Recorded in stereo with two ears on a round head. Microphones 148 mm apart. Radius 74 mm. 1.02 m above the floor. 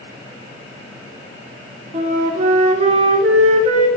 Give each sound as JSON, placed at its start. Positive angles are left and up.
{"t": 1.9, "sound": "a flute", "side_deg": -40, "distance_m": 1.1}